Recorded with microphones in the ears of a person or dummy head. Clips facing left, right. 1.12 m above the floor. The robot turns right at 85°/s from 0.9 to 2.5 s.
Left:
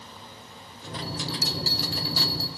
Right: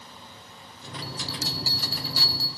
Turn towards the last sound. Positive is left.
turn(degrees=-100)